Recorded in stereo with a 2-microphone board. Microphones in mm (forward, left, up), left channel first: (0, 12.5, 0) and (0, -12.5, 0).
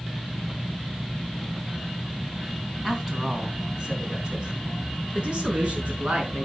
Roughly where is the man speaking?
Centre.